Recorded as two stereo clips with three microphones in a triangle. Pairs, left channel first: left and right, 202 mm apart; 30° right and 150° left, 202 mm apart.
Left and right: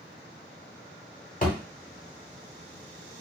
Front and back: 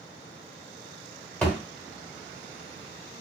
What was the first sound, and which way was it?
A thud, 50° left.